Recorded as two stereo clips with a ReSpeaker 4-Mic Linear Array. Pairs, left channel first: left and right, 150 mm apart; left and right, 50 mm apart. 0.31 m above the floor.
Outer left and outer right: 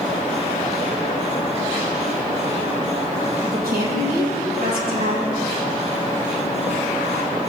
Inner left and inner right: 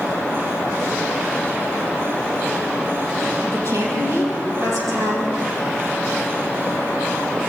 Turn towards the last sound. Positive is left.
turn(degrees=-85)